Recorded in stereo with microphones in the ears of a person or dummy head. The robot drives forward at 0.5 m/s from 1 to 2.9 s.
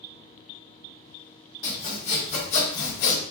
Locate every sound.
1.6 s sawing: 50° left (ahead or behind), 1.2 m; by 3.2 s 60° left (ahead or behind), 1.1 m